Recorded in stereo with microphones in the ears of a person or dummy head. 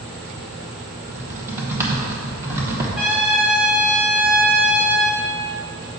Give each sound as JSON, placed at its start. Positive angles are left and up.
{"t": 1.1, "sound": "typing on a keyboard", "side_deg": -15, "distance_m": 1.1}
{"t": 3.0, "sound": "a trumpet", "side_deg": -5, "distance_m": 0.8}